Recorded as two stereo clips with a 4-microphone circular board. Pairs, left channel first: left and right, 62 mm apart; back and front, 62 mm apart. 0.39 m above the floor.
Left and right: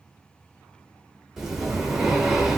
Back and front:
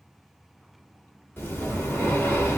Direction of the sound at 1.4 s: 170° right.